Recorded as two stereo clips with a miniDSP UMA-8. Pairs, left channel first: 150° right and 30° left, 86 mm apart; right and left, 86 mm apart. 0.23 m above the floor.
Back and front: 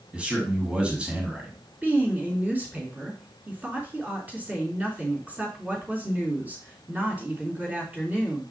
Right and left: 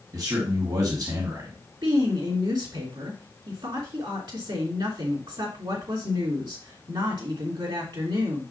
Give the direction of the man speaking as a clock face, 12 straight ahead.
9 o'clock.